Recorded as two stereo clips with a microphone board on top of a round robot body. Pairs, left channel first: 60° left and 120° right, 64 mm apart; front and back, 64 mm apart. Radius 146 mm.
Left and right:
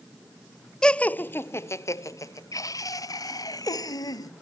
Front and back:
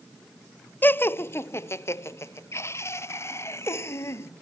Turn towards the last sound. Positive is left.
turn(degrees=45)